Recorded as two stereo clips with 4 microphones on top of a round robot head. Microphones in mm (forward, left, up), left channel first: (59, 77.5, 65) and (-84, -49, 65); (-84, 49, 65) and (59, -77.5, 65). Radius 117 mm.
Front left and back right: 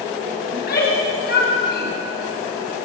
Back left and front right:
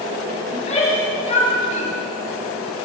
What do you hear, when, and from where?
0.5 s a shout: 80° left, 6.5 m